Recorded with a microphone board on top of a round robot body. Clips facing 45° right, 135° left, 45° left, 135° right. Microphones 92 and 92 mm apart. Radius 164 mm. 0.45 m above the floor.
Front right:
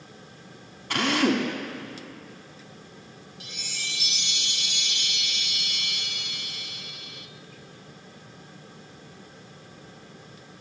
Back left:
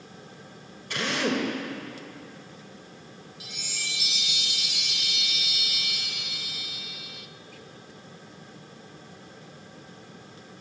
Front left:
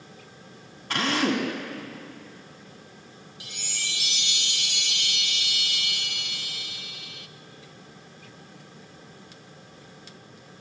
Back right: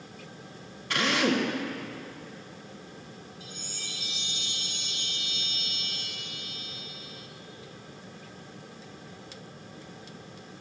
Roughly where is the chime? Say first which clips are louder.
Even, front left 3 dB; ahead left.